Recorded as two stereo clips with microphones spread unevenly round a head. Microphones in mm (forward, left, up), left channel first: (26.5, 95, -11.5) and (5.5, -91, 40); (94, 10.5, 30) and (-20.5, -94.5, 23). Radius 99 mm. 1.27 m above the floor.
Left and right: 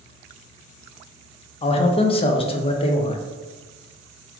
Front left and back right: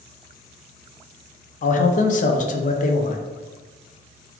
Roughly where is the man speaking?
Ahead left.